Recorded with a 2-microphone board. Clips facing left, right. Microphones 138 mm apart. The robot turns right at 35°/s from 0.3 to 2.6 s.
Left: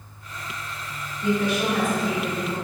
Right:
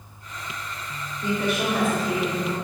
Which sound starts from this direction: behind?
A woman speaking, at 1.2 s.